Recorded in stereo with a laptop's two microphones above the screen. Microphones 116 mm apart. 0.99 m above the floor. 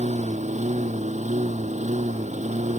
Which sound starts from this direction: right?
A lawn mower, at 0.0 s.